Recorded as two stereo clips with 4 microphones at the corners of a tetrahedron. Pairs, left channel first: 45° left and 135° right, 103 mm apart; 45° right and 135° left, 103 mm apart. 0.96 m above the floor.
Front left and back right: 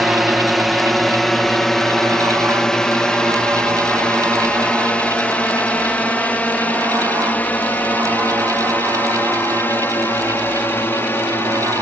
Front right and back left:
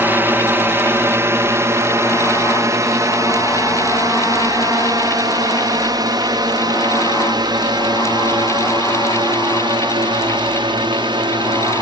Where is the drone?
140° left; by 11.8 s 110° left.